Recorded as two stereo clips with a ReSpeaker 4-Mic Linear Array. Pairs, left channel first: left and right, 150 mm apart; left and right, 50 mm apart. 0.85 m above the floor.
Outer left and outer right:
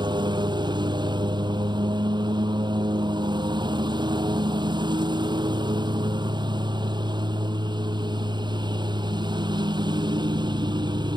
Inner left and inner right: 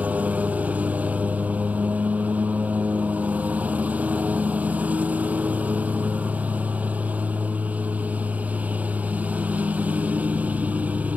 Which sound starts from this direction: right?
A lawn mower, at 0.0 s.